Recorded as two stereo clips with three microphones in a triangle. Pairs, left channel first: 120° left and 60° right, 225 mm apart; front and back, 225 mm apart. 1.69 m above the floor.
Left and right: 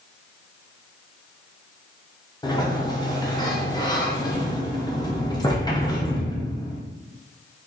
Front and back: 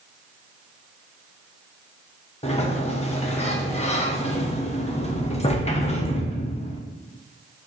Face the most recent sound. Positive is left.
turn(degrees=55)